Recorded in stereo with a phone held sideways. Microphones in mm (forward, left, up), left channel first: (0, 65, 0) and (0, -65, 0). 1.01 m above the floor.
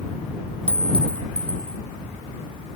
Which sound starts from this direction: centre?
A clink, at 0.7 s.